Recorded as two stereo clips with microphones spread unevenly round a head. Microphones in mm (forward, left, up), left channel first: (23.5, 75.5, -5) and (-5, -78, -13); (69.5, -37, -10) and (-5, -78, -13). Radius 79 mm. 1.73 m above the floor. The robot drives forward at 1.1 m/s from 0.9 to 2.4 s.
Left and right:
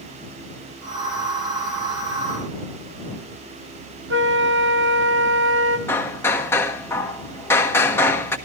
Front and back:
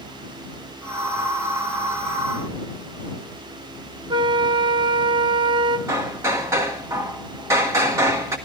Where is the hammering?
150° left, 1.4 m.